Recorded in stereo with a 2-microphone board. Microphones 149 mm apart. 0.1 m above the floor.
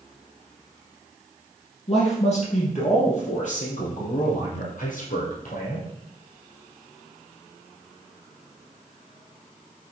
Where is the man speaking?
45° left (ahead or behind), 4 m; by 5.9 s 65° left (ahead or behind), 4.5 m.